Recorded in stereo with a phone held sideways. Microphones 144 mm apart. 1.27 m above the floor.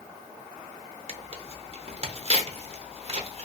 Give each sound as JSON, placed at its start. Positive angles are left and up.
{"t": 1.1, "sound": "tearing paper", "side_deg": -45, "distance_m": 0.6}